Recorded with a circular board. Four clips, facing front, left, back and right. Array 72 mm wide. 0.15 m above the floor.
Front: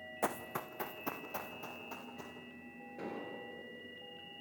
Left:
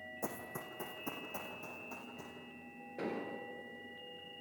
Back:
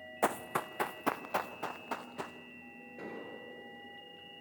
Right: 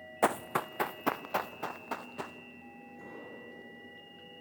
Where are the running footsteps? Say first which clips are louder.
Right 15 dB, back 5 dB; 110° right, 0.5 m; by 2.4 s 130° right, 1.6 m.